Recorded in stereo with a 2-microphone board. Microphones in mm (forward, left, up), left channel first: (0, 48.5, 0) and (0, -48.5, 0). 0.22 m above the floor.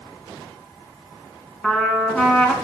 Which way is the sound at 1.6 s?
5° left (ahead or behind).